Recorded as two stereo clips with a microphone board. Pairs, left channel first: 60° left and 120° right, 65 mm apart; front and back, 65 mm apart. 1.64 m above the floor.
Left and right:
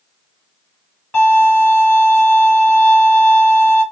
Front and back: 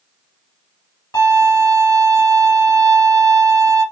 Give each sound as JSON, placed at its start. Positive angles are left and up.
{"t": 1.1, "sound": "a violin", "azimuth_deg": 0, "distance_m": 2.5}